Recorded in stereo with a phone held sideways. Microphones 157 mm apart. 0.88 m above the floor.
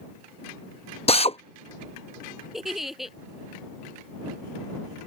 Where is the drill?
40° left (ahead or behind).